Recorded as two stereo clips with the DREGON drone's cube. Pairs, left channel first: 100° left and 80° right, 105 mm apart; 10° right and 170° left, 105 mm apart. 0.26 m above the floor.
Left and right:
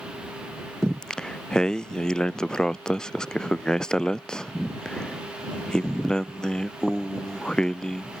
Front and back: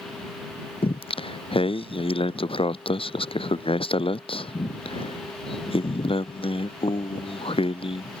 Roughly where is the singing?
Ahead.